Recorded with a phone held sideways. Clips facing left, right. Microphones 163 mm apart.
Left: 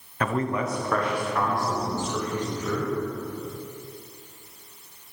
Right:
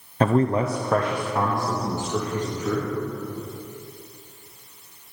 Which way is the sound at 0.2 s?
30° right (ahead or behind).